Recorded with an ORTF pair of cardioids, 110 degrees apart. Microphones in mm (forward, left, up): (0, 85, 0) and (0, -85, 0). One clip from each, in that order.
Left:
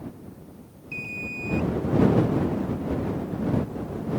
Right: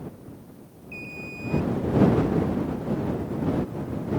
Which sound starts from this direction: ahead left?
An alarm, at 0.9 s.